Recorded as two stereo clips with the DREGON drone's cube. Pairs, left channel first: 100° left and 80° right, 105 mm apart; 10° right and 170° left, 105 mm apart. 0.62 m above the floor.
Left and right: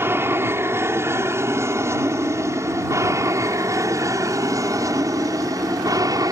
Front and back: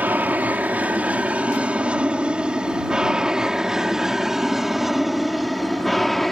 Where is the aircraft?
130° right; by 6.3 s 100° right.